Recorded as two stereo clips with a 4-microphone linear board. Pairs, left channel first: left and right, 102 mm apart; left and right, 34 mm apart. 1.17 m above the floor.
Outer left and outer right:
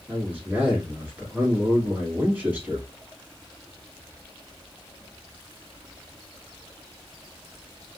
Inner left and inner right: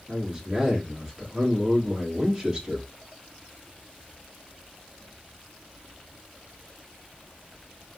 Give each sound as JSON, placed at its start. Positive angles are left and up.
{"t": 0.1, "sound": "a man speaking", "side_deg": -15, "distance_m": 1.7}